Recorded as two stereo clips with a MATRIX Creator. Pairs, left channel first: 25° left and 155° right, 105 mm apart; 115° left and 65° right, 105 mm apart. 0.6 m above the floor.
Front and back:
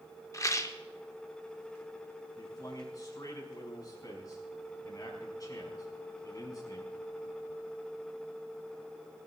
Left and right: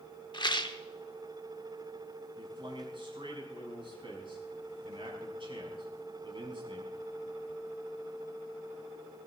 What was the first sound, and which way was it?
A rattle, 75° left.